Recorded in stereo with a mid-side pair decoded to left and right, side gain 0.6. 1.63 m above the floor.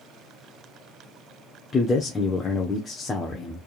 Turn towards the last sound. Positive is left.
turn(degrees=25)